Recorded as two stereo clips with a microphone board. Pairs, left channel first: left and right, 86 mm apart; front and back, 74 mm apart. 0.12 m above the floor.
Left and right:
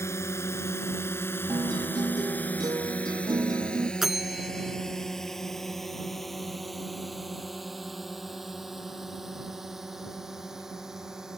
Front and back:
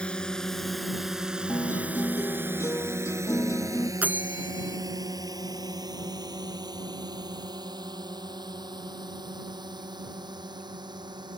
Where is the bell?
170° right.